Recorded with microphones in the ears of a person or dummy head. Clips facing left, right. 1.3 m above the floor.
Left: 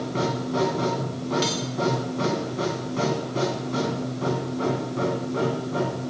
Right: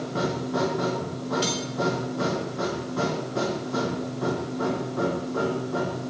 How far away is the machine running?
About 2.5 m.